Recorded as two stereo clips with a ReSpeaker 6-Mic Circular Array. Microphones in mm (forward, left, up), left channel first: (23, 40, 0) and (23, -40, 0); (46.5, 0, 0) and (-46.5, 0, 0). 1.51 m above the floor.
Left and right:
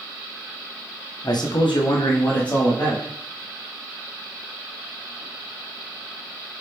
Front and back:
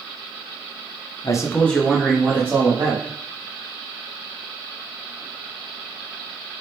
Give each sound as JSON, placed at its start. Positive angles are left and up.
{"t": 1.2, "sound": "a man speaking", "azimuth_deg": 50, "distance_m": 0.5}